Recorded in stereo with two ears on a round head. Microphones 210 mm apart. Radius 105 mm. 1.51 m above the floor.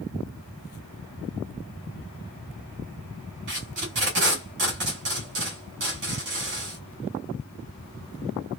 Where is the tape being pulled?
50° right (ahead or behind), 1.8 m.